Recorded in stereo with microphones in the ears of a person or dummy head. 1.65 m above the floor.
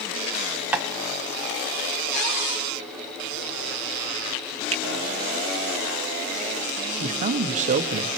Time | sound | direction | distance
0.7 | tapping | 5° right (ahead or behind) | 0.9 m
2.1 | a cupboard door | 65° left (ahead or behind) | 7.5 m
4.7 | a finger snap | 30° right (ahead or behind) | 1.0 m
7.0 | a man speaking | 40° right (ahead or behind) | 0.8 m